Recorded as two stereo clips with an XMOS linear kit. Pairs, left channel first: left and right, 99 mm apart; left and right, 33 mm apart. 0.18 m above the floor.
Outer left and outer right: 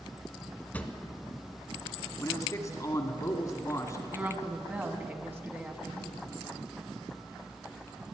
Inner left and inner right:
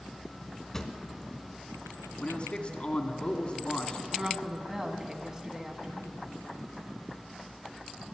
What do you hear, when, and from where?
0.7 s a drawer: 15° left (ahead or behind), 0.9 m
2.2 s a man speaking: 35° left (ahead or behind), 1.2 m
4.1 s a woman speaking: 20° right (ahead or behind), 1.1 m